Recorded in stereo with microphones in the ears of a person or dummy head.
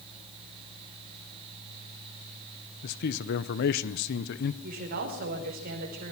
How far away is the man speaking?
About 0.9 m.